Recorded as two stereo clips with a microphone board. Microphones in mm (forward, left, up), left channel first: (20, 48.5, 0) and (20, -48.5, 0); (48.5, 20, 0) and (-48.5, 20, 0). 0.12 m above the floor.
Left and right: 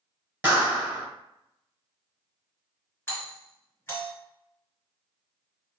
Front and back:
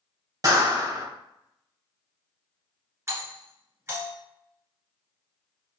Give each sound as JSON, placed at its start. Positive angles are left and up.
{"t": 0.4, "sound": "a clap", "azimuth_deg": -160, "distance_m": 1.9}
{"t": 3.1, "sound": "a doorbell", "azimuth_deg": 140, "distance_m": 1.9}